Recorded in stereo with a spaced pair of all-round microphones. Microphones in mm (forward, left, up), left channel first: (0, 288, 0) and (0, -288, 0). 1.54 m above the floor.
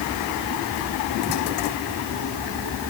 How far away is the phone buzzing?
No phone buzzing in this recording.